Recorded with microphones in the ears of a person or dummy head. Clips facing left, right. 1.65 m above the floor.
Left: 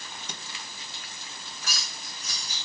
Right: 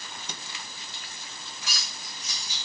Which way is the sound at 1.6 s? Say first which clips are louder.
Left 2 dB; 40° left (ahead or behind).